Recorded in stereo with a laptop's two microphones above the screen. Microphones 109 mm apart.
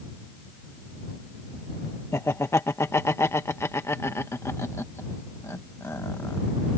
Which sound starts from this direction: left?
Laughter, at 2.1 s.